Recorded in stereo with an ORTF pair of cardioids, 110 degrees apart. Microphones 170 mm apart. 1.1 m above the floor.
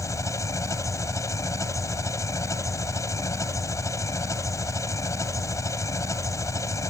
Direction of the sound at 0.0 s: 20° left.